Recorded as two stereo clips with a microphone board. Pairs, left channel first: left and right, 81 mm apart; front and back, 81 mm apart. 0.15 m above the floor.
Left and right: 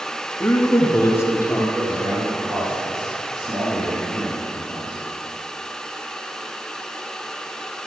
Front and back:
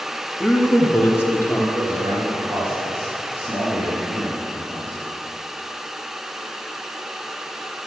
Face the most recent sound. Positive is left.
turn(degrees=-125)